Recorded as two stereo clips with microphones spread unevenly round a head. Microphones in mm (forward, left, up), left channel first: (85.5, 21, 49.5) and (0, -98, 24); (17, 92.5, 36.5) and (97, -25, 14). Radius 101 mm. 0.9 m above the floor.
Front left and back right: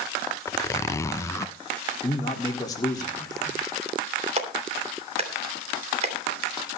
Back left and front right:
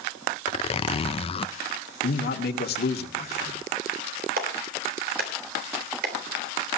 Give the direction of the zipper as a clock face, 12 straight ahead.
8 o'clock.